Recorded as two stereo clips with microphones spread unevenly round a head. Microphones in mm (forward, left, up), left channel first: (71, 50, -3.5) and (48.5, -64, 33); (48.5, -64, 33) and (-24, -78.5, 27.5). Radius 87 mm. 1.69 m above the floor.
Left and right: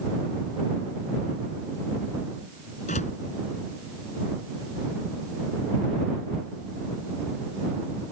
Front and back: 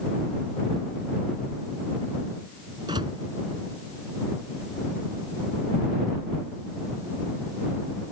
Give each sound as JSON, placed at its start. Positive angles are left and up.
{"t": 2.9, "sound": "a door slam", "azimuth_deg": 130}